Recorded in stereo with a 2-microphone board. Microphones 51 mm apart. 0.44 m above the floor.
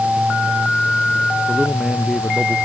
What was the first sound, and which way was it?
A man speaking, 5° right (ahead or behind).